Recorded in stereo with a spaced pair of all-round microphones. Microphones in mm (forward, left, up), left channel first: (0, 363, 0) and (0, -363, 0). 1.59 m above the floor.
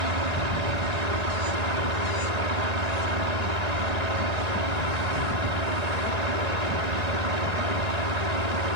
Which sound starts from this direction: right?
A fan, at 0.0 s.